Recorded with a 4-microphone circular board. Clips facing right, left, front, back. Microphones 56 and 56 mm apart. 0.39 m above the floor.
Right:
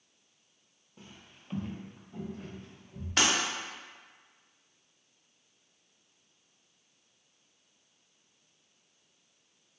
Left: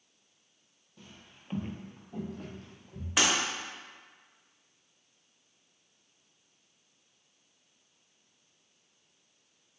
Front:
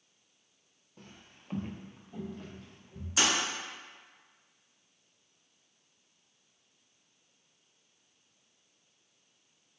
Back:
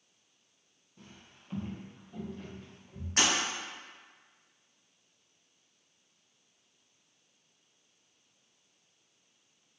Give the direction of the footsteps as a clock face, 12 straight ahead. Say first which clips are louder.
Right 1 dB, front 1 dB; 1 o'clock.